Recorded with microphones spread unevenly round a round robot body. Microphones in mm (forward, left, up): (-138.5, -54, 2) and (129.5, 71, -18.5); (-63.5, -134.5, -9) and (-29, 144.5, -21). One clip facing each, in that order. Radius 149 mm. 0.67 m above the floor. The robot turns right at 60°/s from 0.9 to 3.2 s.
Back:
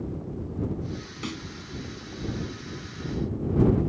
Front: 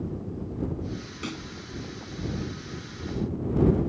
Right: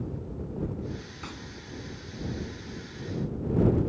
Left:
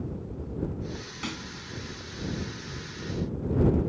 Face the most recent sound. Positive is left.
turn(degrees=-125)